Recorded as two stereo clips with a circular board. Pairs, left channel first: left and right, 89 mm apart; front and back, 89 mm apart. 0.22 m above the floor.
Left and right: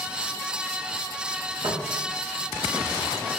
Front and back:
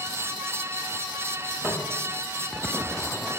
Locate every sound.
1.6 s footsteps: 105° right, 1.6 m